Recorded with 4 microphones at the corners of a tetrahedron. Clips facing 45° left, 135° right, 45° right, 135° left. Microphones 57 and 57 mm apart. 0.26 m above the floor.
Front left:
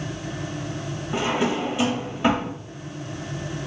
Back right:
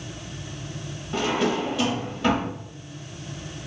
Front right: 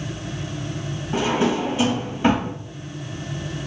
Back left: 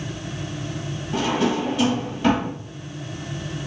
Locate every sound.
1.1 s a drawer: 10° right, 0.5 m